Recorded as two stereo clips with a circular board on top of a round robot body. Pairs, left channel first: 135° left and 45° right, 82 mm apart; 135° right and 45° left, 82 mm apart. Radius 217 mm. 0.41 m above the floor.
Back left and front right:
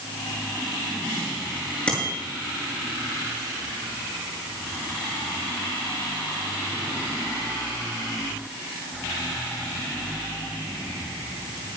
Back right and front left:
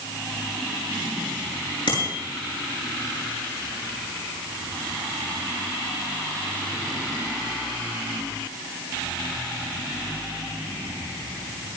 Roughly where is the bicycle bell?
Behind right.